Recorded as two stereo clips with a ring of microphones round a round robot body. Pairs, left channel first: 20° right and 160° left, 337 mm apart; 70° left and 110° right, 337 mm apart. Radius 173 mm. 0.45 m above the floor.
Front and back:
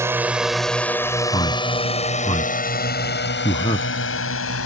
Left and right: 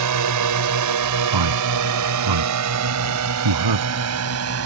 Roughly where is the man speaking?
Right.